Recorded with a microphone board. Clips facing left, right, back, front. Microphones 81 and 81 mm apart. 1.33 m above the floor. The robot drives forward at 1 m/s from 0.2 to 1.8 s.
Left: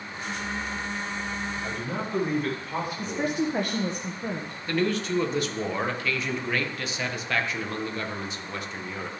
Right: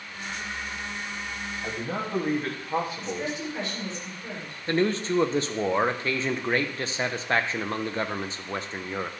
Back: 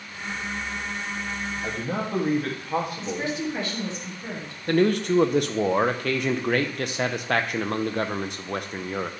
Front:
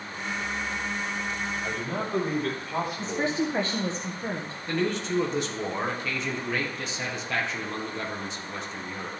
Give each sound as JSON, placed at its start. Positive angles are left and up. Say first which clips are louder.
{"t": 1.6, "sound": "a man speaking", "louder": "even, back 2 dB", "azimuth_deg": -150, "distance_m": 2.5}
{"t": 3.0, "sound": "a woman speaking", "louder": "left 4 dB, front 1 dB", "azimuth_deg": 55, "distance_m": 1.1}
{"t": 4.7, "sound": "a man speaking", "louder": "right 2 dB, back 7 dB", "azimuth_deg": -150, "distance_m": 0.9}